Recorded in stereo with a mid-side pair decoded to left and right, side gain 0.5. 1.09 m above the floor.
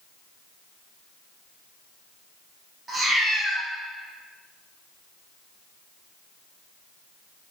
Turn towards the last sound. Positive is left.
turn(degrees=-20)